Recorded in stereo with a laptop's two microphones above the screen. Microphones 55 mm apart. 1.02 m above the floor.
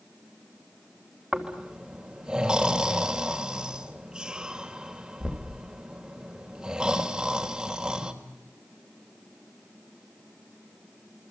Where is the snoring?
15° right (ahead or behind), 3 m.